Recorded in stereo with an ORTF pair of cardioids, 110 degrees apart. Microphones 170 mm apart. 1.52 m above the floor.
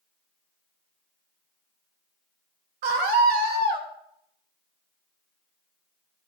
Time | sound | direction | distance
2.8 | a scream | 70° right | 3 m